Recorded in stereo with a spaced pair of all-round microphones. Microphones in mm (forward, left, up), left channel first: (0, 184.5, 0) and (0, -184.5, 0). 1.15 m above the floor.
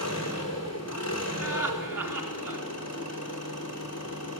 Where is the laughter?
55° right (ahead or behind), 2.5 m.